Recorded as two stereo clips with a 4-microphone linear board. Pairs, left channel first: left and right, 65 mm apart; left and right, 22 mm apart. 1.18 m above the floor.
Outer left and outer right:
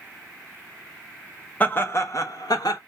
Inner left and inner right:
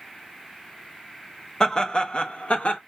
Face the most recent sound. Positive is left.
turn(degrees=80)